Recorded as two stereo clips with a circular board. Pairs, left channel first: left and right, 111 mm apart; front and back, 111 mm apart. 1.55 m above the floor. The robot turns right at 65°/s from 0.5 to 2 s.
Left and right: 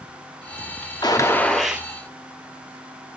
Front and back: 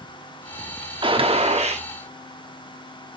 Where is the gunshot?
140° left, 0.9 m; by 1.9 s 165° right, 0.9 m.